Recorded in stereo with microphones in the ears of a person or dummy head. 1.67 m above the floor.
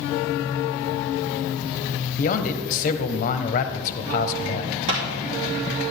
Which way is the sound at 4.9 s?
65° right (ahead or behind).